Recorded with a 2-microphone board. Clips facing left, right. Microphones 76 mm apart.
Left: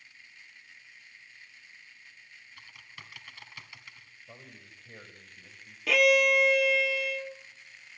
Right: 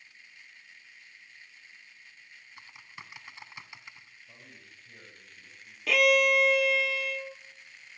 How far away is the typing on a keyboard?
About 1.6 m.